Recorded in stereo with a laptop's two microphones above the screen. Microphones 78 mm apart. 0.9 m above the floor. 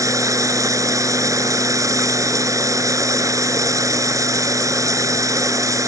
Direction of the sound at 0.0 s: 45° right (ahead or behind).